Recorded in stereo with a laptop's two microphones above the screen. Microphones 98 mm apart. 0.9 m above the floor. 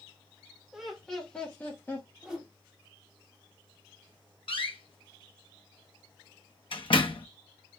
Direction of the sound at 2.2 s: 10° right (ahead or behind).